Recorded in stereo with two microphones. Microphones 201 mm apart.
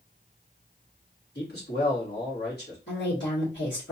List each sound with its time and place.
1.4 s a man speaking: 60° left (ahead or behind), 3 m
2.9 s a woman speaking: 70° left (ahead or behind), 2.5 m